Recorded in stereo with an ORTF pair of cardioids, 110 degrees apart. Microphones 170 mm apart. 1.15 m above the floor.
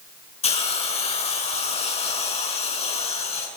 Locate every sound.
0.4 s a hiss: 35° left, 7 m